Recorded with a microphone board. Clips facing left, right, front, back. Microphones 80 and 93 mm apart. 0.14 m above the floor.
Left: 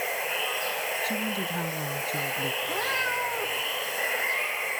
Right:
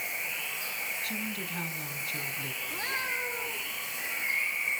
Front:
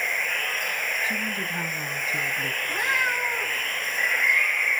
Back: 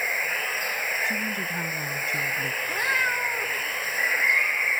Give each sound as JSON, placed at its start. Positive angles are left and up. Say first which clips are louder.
{"t": 0.0, "sound": "running water", "louder": "left 8 dB, even", "azimuth_deg": 95, "distance_m": 0.9}
{"t": 1.0, "sound": "a woman speaking", "louder": "left 7 dB, even", "azimuth_deg": 80, "distance_m": 1.2}
{"t": 2.6, "sound": "a cat meowing", "louder": "left 4 dB, even", "azimuth_deg": 95, "distance_m": 6.0}